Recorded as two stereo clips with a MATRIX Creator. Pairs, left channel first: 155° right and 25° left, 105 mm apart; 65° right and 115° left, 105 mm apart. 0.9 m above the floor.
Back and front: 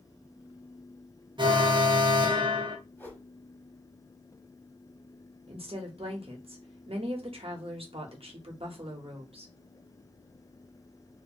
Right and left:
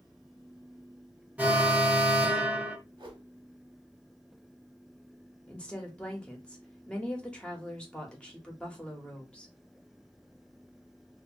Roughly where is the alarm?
Ahead left.